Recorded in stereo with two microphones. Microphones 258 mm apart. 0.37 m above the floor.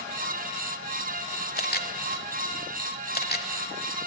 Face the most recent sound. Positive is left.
turn(degrees=40)  # may be behind; listen again after turning